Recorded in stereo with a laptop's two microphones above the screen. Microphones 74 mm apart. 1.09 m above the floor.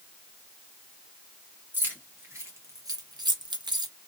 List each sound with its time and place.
1.7 s keys jangling: 25° right (ahead or behind), 1.3 m; by 3.9 s 70° right (ahead or behind), 0.7 m